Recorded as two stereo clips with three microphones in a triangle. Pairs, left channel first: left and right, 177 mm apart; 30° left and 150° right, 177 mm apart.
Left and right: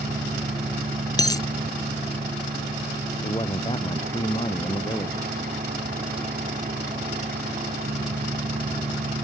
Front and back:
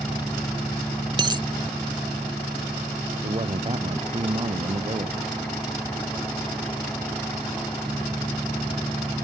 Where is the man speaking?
155° left.